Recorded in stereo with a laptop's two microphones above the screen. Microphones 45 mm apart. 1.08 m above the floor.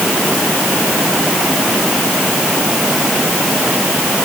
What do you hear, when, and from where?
Only background noise.